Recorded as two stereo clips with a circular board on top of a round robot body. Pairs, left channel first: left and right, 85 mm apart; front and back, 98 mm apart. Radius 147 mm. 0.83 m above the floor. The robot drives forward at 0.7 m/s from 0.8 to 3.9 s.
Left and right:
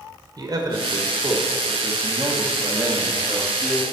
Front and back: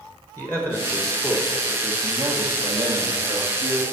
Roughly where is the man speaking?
Ahead right.